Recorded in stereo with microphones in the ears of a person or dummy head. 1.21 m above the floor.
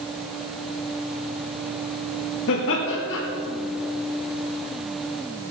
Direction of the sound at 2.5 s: 70° left (ahead or behind).